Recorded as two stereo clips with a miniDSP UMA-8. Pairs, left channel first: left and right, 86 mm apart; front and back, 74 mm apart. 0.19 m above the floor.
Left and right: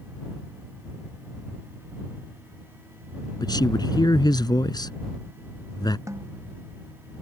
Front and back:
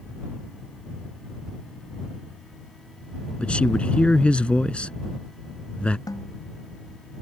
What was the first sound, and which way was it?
A man speaking, 70° left.